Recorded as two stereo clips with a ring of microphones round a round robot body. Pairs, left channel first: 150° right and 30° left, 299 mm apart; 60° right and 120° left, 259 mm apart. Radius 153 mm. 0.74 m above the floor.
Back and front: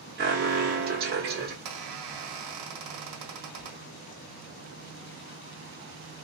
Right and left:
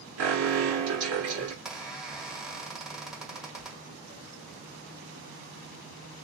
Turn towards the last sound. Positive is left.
turn(degrees=30)